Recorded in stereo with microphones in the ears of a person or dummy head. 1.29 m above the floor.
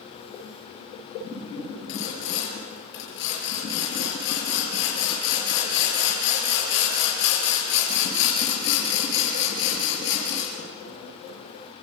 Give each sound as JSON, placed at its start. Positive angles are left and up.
{"t": 1.9, "sound": "sawing", "side_deg": 75, "distance_m": 7.0}